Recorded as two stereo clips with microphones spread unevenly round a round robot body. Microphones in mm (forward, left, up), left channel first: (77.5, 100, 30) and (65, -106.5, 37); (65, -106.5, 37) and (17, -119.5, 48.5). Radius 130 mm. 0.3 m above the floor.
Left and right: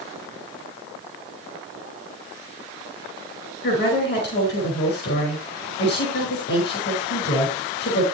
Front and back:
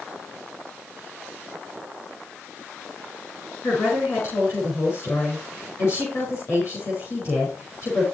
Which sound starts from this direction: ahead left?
A woman speaking, at 3.6 s.